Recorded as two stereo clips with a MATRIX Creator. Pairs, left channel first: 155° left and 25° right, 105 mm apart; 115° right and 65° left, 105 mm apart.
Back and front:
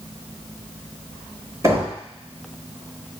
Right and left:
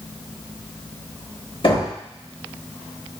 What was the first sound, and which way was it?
Knocking, 85° right.